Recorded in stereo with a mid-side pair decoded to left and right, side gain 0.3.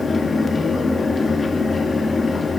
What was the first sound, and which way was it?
A fan, 50° left.